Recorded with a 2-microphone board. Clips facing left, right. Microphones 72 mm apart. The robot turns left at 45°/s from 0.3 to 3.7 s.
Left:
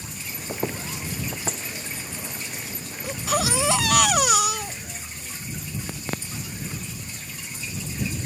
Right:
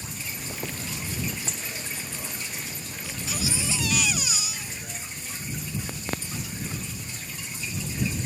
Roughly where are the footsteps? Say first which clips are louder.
Left 8 dB; left.